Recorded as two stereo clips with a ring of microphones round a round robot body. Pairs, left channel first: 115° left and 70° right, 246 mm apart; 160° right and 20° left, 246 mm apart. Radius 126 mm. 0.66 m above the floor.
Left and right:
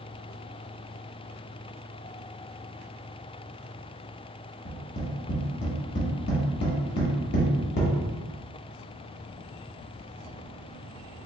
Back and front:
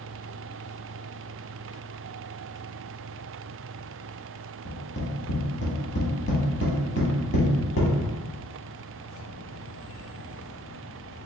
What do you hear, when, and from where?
4.7 s tapping: 160° left, 1.3 m